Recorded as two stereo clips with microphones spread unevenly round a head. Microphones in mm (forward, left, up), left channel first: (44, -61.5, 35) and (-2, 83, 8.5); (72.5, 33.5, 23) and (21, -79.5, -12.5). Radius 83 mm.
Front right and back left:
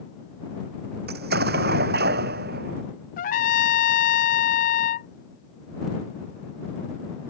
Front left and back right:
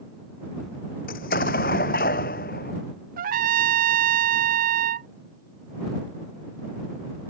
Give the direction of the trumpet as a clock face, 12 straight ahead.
4 o'clock.